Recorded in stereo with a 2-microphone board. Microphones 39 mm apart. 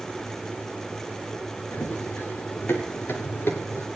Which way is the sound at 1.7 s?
60° left (ahead or behind).